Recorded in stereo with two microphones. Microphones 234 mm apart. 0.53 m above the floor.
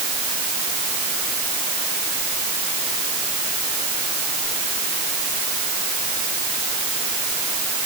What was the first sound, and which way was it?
Only background noise.